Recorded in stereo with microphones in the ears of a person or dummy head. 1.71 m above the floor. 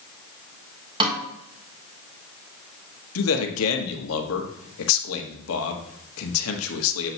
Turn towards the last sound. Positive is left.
turn(degrees=80)